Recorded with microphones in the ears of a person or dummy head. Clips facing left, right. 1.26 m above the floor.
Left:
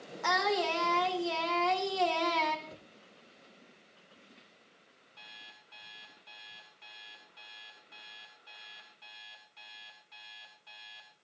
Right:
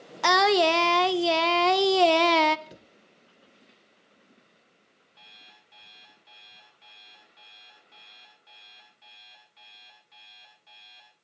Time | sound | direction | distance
0.2 | singing | 75° right (ahead or behind) | 0.7 m
2.7 | a cupboard door | 25° right (ahead or behind) | 0.6 m
5.2 | an alarm clock | 5° left (ahead or behind) | 6.5 m